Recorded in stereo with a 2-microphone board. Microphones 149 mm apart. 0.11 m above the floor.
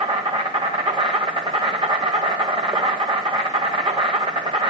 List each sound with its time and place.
0.0 s an insect: 35° right (ahead or behind), 1.6 m